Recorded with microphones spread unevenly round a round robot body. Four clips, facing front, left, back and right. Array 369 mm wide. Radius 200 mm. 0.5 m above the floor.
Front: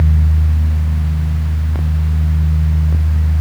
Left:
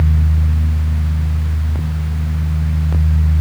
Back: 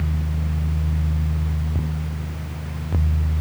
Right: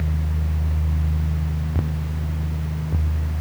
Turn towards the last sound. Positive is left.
No sound to turn to.